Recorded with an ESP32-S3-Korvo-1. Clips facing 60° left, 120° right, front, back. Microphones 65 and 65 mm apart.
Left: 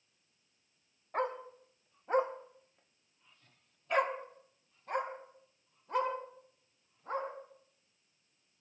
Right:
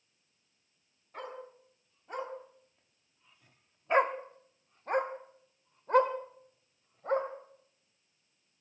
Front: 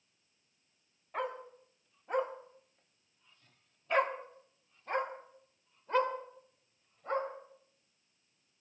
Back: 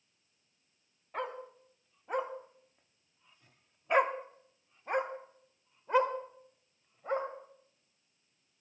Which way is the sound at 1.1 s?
90° left.